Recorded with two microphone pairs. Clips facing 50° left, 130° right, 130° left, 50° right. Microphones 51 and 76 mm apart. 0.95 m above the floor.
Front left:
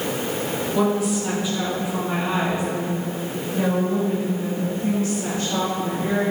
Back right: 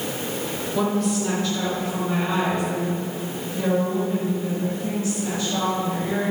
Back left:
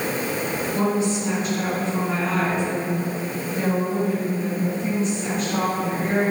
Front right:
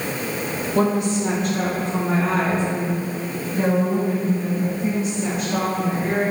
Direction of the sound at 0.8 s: 35° right.